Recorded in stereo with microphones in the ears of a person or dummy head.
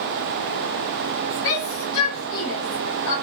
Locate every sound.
1.4 s a shout: 85° left, 1.6 m; by 3.1 s 55° left (ahead or behind), 2 m